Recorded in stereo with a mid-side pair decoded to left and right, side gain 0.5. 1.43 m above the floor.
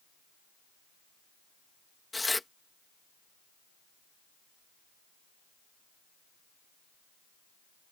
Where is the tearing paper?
15° left.